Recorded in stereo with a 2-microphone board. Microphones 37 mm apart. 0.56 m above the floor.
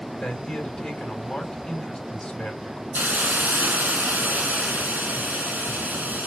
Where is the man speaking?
15° left (ahead or behind), 4 m.